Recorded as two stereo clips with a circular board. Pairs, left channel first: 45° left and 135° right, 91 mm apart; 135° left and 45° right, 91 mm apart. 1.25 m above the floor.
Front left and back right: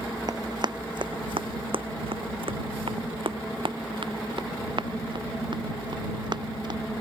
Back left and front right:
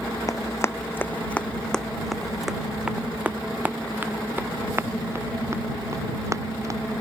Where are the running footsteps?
175° right; by 6.8 s 100° right.